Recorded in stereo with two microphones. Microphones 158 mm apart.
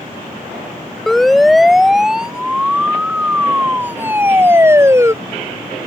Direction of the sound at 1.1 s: Centre (ahead or behind).